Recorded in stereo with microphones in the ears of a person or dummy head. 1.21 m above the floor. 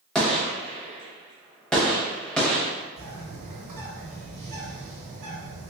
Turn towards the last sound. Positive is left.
turn(degrees=-45)  # may be behind; listen again after turning